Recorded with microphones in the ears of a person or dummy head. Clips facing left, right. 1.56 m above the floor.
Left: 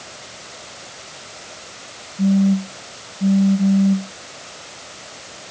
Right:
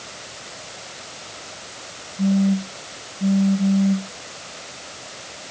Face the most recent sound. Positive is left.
turn(degrees=5)  # may be behind; listen again after turning